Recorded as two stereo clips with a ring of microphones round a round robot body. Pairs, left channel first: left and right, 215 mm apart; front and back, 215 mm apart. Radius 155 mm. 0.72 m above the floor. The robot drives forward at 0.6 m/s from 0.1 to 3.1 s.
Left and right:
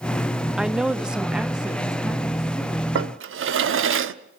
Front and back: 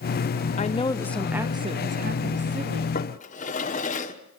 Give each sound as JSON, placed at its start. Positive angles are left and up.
{"t": 0.6, "sound": "a woman speaking", "azimuth_deg": -5, "distance_m": 0.7}
{"t": 3.0, "sound": "a drawer", "azimuth_deg": -60, "distance_m": 1.1}